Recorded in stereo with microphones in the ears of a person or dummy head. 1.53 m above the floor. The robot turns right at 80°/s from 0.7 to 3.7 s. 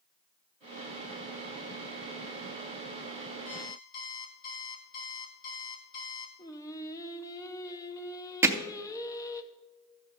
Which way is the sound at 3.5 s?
35° left (ahead or behind).